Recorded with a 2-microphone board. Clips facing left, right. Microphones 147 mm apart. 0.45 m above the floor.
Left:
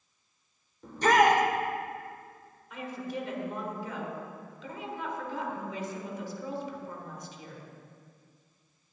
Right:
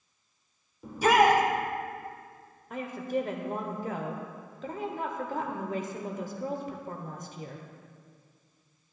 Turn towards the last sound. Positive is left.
turn(degrees=-50)  # may be behind; listen again after turning